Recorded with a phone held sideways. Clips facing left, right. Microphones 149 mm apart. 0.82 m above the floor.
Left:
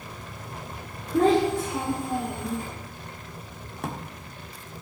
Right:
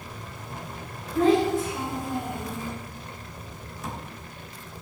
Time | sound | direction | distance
1.1 | a child speaking | 75° left (ahead or behind) | 2.5 m
3.8 | a drawer | 60° left (ahead or behind) | 1.0 m